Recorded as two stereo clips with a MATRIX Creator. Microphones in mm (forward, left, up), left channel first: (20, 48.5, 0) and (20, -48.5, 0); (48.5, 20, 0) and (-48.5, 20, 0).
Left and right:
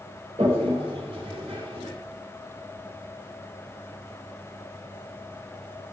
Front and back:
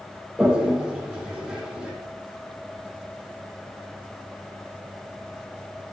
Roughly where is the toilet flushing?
Right.